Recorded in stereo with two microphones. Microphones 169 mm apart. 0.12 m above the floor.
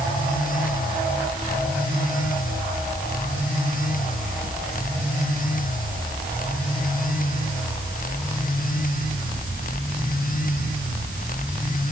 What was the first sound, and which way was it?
Only background noise.